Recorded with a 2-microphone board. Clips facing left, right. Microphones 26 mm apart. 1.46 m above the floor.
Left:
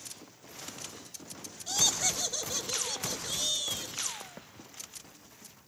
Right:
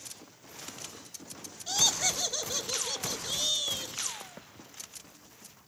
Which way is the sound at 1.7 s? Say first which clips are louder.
Right 1 dB; 10° right (ahead or behind).